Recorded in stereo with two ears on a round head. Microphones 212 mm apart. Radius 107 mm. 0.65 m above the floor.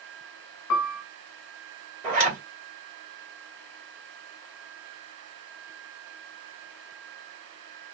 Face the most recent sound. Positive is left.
turn(degrees=-35)  # may be behind; listen again after turning